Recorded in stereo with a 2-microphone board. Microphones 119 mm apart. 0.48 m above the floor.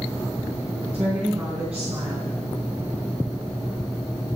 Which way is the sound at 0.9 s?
10° right (ahead or behind).